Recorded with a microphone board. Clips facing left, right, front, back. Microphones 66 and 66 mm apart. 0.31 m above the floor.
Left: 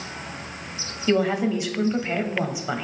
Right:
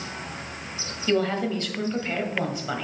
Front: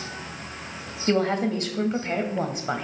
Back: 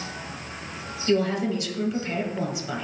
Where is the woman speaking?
15° left, 1.3 m.